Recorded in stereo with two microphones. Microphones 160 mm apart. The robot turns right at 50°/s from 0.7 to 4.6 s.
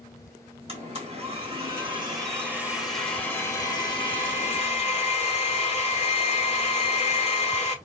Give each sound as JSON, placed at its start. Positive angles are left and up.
{"t": 0.7, "sound": "a blender", "azimuth_deg": -110, "distance_m": 1.6}